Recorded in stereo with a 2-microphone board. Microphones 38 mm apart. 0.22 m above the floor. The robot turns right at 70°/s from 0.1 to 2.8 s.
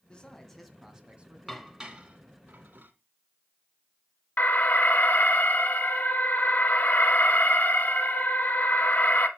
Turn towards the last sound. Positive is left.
turn(degrees=50)  # may be behind; listen again after turning